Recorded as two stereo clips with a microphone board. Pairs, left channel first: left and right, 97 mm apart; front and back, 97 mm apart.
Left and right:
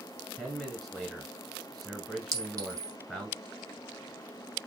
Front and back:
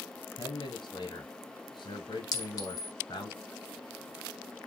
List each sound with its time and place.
0.4 s a man speaking: straight ahead, 1.5 m
2.3 s a clink: 40° right, 1.2 m